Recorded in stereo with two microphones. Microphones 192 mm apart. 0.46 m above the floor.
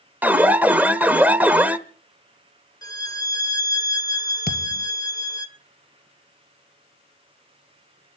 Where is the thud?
55° left (ahead or behind), 1.6 m.